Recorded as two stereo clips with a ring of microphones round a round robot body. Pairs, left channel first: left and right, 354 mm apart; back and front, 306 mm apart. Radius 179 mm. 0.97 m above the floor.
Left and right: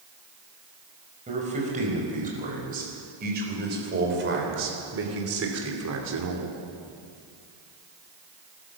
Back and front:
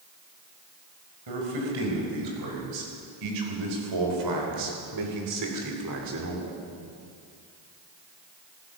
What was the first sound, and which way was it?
A man speaking, 20° right.